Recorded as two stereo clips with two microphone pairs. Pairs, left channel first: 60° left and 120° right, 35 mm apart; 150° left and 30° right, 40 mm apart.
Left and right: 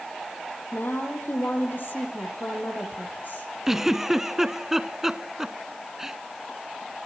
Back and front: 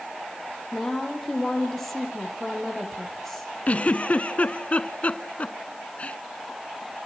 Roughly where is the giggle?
Behind.